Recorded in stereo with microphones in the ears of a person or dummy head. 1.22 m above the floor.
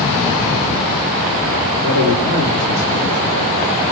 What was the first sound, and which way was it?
A man speaking, 35° right (ahead or behind).